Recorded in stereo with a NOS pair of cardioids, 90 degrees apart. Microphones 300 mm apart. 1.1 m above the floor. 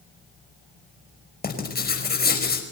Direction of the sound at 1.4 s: 30° left.